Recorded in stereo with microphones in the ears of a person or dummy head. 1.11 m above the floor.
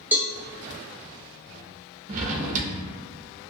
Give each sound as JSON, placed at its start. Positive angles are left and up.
{"t": 0.1, "sound": "a cowbell", "side_deg": -5, "distance_m": 0.6}
{"t": 2.1, "sound": "a drawer", "side_deg": -40, "distance_m": 0.5}